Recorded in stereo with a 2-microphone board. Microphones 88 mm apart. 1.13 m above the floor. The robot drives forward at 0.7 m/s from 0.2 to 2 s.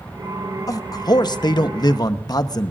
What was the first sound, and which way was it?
A man speaking, 45° left (ahead or behind).